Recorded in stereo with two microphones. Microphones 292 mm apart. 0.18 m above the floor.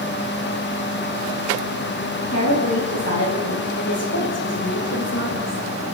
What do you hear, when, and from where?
2.3 s a woman speaking: 55° left (ahead or behind), 9.5 m